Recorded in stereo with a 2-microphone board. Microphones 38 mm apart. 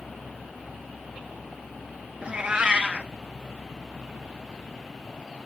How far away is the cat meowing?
About 0.8 m.